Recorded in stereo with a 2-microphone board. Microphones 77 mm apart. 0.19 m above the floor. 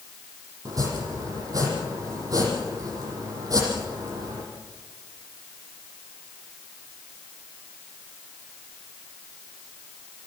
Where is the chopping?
50° right (ahead or behind), 7.5 m.